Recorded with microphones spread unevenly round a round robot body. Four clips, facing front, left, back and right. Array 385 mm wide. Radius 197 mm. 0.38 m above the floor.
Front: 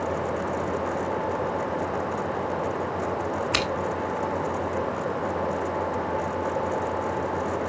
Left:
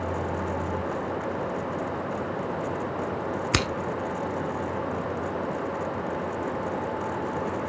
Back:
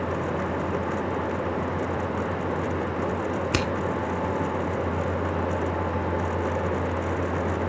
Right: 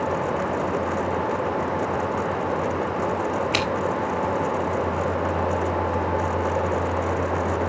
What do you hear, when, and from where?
3.5 s scissors: 125° left, 0.7 m